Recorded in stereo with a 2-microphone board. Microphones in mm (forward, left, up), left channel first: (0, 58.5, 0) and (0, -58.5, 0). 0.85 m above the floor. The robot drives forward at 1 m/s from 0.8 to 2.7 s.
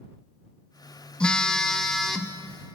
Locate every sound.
1.2 s a phone buzzing: 10° left (ahead or behind), 0.6 m; by 2.4 s 5° left (ahead or behind), 1.7 m